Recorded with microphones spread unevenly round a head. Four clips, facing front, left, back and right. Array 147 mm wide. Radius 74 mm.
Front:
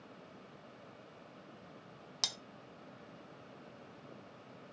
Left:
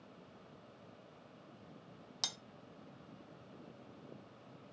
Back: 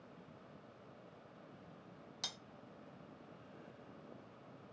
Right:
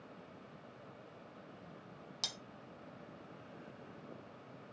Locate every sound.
2.2 s cutlery clinking: 15° left, 0.6 m